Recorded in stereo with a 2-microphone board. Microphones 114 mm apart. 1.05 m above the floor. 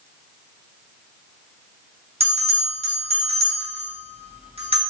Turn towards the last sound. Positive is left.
turn(degrees=-60)  # may be behind; listen again after turning